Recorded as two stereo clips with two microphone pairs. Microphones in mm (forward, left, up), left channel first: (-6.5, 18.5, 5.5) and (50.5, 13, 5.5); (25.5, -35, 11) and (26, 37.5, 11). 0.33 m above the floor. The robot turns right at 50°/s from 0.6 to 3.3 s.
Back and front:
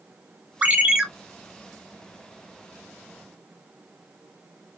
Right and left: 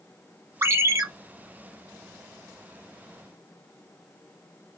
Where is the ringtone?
50° left, 0.8 m; by 1.0 s 70° left, 0.8 m.